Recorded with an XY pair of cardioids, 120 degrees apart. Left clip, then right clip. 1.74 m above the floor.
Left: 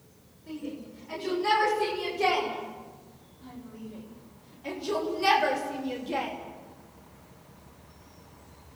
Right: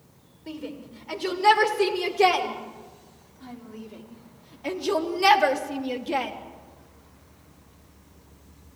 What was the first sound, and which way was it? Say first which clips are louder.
A shout: right 2 dB; 60° right.